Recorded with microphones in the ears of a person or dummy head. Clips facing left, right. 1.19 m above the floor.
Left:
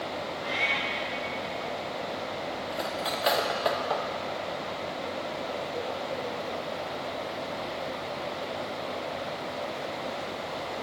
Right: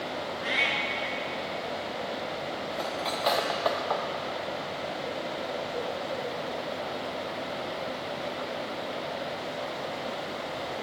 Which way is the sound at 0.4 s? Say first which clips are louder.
Even; 25° right (ahead or behind).